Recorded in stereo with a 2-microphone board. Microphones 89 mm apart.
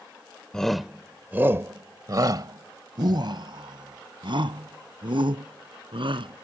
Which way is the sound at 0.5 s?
10° left (ahead or behind).